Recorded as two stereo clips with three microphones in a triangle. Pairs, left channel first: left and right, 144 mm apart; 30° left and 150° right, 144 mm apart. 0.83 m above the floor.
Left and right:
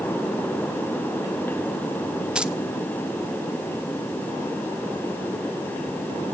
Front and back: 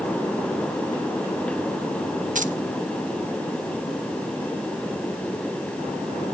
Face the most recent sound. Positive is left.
turn(degrees=-175)